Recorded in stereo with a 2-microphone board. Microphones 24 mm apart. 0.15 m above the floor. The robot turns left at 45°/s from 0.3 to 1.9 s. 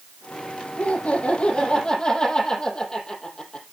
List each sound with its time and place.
0.8 s laughter: 95° left, 5.5 m; by 3.6 s 45° left, 5.5 m